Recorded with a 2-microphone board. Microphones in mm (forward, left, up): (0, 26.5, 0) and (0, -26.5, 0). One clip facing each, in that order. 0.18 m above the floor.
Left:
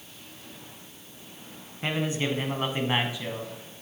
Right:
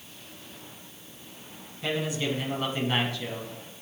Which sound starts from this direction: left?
A man speaking, at 1.8 s.